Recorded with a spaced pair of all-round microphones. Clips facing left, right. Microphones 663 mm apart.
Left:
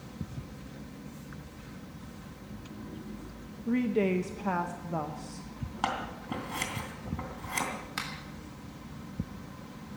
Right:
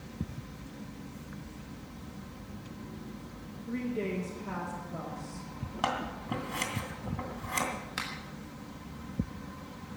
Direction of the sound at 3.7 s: 80° left.